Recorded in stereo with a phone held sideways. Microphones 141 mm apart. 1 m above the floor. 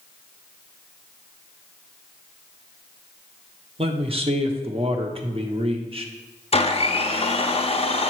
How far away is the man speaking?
About 1.0 m.